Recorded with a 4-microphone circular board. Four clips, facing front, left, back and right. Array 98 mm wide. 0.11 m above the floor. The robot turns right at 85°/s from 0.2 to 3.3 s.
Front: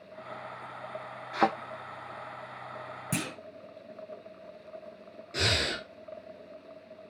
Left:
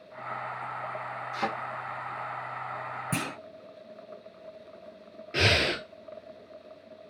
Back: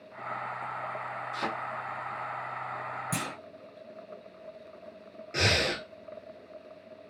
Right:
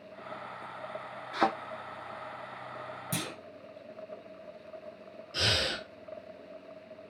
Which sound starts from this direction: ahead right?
A thud, at 1.3 s.